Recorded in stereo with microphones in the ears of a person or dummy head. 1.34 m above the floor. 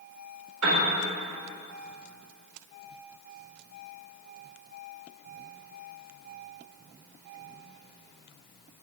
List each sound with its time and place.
0.6 s a piano: 80° right, 4 m